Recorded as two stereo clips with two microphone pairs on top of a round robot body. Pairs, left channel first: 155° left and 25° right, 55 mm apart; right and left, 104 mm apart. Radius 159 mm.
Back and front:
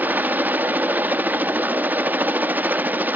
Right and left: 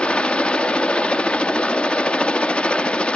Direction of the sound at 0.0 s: 5° right.